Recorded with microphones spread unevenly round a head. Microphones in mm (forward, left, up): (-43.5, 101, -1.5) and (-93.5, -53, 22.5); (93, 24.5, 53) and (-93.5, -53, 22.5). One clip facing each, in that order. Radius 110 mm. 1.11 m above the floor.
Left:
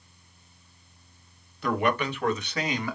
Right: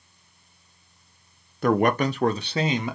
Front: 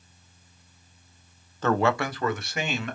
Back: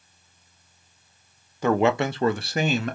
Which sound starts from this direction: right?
A man speaking, at 1.6 s.